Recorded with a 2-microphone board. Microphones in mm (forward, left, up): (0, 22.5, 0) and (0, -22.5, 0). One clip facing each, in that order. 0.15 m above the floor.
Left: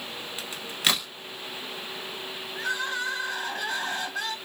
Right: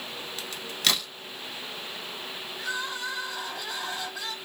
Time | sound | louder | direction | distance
0.4 | a crack | left 1 dB | 15° left (ahead or behind) | 0.9 m
2.5 | crying | left 4 dB | 50° left (ahead or behind) | 1.4 m